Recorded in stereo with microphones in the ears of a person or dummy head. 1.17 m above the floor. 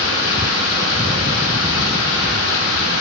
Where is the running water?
70° left (ahead or behind), 1.0 m.